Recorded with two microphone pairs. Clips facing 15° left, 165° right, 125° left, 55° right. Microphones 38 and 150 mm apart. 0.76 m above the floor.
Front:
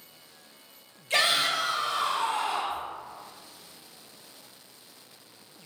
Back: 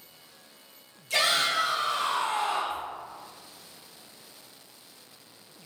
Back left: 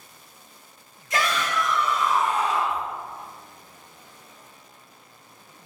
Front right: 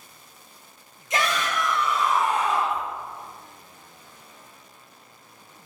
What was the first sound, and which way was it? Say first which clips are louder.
A shout: even, even; straight ahead.